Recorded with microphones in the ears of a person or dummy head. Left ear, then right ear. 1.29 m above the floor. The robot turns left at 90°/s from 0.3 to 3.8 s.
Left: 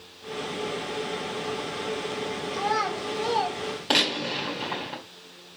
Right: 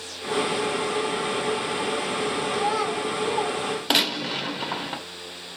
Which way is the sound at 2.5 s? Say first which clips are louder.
Left 1 dB; 25° right (ahead or behind).